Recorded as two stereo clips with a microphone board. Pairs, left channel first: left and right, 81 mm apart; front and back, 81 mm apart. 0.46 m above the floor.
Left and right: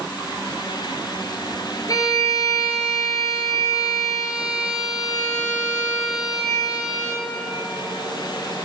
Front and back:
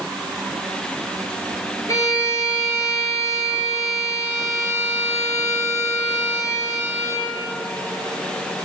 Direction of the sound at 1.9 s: 50° left.